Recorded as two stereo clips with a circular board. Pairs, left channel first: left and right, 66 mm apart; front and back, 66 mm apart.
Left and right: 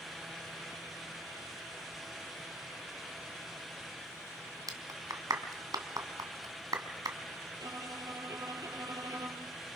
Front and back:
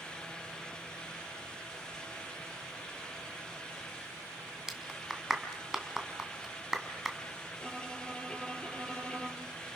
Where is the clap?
100° right, 2.5 m.